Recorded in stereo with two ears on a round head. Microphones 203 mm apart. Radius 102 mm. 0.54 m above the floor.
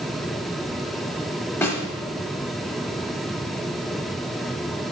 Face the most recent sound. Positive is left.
turn(degrees=10)  # may be behind; listen again after turning